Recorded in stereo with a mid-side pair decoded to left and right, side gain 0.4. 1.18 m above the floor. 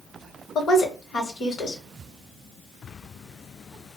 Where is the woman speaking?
65° left, 1.2 m.